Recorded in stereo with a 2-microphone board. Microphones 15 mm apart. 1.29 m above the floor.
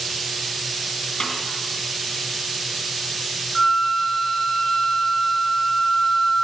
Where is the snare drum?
65° left (ahead or behind), 3 m.